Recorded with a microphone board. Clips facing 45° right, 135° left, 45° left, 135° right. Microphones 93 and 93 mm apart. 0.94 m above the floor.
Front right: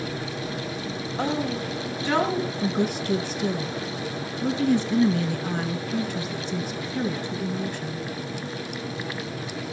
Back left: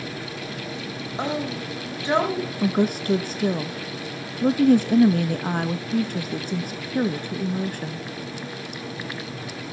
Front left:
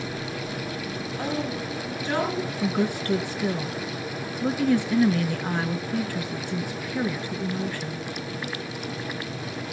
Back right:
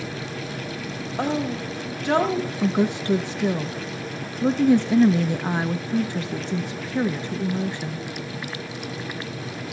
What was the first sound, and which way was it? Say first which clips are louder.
A woman speaking: front right 1 dB, back right 5 dB; 155° right.